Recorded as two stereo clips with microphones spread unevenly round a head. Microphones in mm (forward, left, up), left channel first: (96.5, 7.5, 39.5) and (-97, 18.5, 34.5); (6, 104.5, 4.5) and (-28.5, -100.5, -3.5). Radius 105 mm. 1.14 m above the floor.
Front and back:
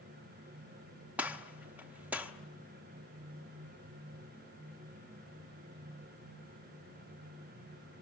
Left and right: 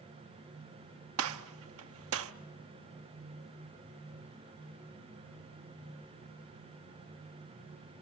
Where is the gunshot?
100° right, 0.8 m.